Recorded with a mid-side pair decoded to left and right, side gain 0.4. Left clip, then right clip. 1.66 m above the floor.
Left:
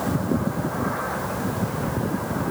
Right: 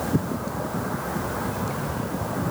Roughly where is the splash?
I don't hear a splash.